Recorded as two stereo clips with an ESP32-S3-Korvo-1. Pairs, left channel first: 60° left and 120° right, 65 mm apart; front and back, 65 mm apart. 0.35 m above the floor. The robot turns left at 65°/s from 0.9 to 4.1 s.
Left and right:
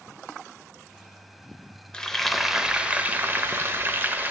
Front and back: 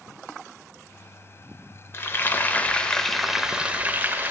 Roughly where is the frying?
Ahead.